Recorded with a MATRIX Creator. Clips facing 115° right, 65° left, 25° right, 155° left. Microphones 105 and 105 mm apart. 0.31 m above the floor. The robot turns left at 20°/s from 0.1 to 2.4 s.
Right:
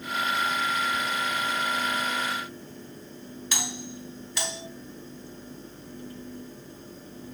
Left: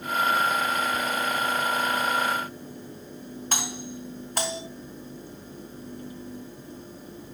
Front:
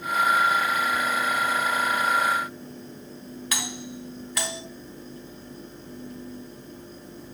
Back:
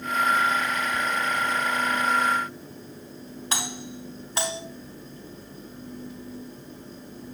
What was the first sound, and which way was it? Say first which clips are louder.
A doorbell: left 2 dB, back 2 dB; 100° left.